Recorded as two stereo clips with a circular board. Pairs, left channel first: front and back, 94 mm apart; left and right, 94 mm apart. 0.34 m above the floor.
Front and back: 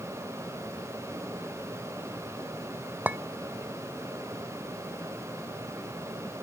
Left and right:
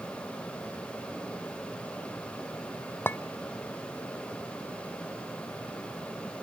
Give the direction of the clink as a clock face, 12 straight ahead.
8 o'clock.